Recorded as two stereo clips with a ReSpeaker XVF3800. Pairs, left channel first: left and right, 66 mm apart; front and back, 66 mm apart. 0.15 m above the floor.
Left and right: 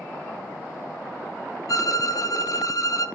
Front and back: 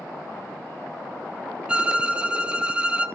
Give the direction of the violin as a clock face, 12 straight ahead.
8 o'clock.